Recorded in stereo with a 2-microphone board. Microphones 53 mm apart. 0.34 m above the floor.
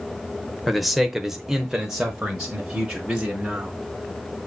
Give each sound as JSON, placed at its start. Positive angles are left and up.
{"t": 0.7, "sound": "a man speaking", "side_deg": -5, "distance_m": 1.0}